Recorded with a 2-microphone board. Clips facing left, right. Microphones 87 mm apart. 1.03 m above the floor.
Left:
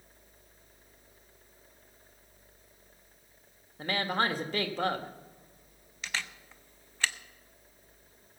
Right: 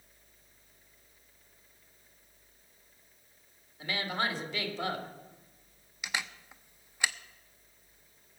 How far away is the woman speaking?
About 1.7 m.